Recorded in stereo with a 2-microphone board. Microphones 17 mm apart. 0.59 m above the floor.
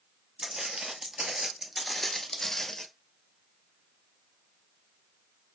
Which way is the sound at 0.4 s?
55° right (ahead or behind).